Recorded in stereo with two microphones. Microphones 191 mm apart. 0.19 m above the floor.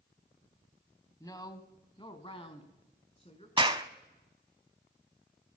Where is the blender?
No blender in this recording.